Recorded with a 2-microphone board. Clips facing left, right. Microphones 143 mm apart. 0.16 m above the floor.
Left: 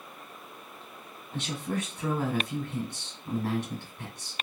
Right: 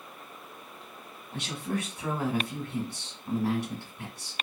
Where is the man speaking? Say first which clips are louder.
Even; 10° right (ahead or behind), 1.1 m.